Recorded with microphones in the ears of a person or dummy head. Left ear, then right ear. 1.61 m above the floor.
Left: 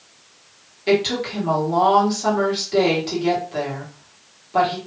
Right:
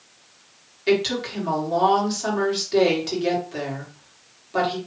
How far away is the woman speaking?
About 1.8 m.